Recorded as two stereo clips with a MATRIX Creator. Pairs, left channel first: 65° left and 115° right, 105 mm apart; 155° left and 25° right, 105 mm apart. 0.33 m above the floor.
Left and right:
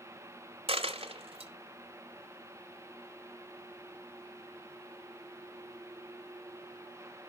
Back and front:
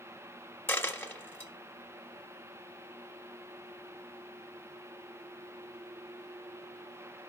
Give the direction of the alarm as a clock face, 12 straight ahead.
I don't hear an alarm.